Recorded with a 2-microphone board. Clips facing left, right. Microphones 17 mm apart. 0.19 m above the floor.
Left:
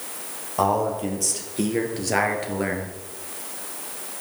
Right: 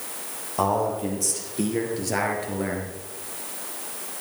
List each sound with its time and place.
0.6 s a man speaking: 10° left (ahead or behind), 4 m; by 3.0 s 25° left (ahead or behind), 2.5 m